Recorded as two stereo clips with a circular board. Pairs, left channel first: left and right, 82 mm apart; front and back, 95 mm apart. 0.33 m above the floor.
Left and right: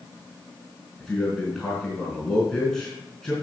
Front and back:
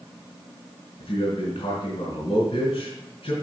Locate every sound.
1.0 s a man speaking: 5° left, 3.5 m